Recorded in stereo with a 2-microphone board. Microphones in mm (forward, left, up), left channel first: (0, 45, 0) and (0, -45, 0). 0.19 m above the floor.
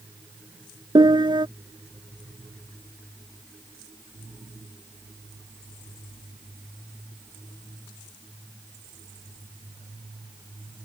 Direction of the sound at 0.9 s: 70° right (ahead or behind).